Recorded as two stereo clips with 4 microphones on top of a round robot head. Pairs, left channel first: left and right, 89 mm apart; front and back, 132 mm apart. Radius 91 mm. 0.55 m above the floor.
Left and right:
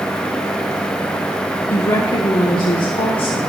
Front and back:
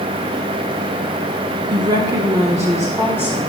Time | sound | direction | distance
1.7 | a woman speaking | 140° left | 1.0 m